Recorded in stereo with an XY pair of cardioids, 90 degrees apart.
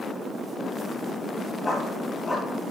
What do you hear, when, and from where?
1.6 s a dog barking: 45° left, 6 m